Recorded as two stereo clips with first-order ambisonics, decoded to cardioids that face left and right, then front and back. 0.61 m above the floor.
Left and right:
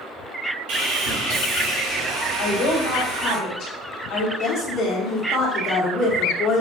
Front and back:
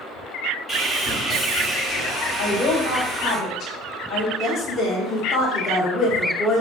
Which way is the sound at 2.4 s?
50° left.